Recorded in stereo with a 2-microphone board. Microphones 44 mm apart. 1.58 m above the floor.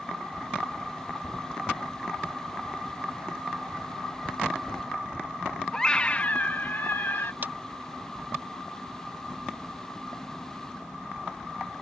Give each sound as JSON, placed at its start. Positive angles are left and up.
{"t": 5.7, "sound": "a scream", "side_deg": 15}
{"t": 7.4, "sound": "a clap", "side_deg": -55}